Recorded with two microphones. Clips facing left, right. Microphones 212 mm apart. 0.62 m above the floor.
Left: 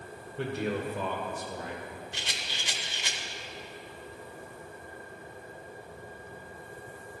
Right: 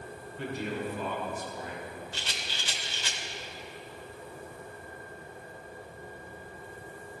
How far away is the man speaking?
About 1.8 m.